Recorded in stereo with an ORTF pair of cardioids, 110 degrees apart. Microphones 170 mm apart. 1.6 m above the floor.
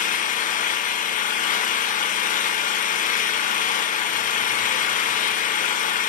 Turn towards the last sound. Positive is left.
turn(degrees=50)